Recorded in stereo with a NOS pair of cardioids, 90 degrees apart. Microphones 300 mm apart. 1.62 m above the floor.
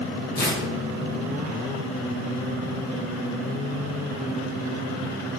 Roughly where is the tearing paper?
Ahead left.